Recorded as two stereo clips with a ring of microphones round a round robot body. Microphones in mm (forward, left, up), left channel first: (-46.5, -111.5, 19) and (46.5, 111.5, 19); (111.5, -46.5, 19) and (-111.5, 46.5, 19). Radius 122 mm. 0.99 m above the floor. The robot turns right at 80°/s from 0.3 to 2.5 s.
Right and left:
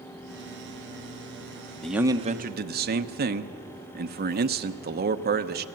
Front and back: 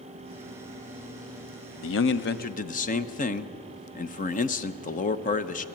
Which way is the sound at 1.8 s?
25° right.